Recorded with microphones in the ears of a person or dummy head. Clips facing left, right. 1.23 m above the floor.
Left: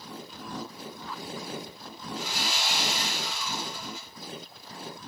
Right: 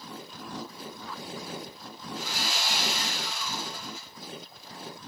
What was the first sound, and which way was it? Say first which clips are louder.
Sawing: left 1 dB; 65° left (ahead or behind).